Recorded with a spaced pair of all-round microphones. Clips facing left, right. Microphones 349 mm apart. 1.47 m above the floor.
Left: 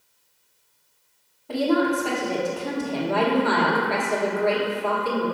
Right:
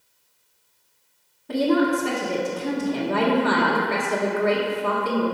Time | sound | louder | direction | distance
1.5 | a woman speaking | right 1 dB | 25° right (ahead or behind) | 1.2 m